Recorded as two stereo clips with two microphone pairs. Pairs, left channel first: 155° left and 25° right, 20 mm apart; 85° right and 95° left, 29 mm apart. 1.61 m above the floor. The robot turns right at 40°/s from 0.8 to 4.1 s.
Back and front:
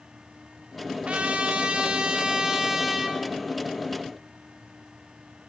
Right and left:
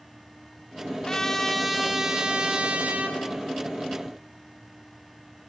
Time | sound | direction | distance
1.1 | a trumpet | 20° right | 0.9 m